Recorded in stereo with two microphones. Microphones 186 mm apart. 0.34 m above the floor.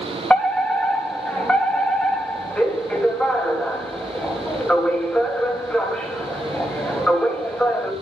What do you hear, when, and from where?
0.3 s a fire alarm: 5° left (ahead or behind), 3 m